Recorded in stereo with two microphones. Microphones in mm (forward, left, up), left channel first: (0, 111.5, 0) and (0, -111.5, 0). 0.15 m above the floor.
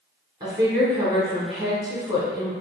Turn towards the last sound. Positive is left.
turn(degrees=-20)  # may be behind; listen again after turning